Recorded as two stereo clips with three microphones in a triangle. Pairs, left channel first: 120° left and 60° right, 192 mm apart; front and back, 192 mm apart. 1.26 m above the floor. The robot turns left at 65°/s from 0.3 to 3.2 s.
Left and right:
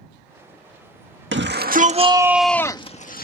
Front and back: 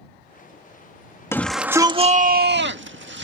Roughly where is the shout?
Right.